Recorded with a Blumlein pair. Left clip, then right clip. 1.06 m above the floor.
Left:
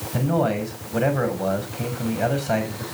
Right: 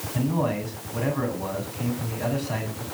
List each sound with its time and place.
0.1 s a man speaking: 35° left, 6.5 m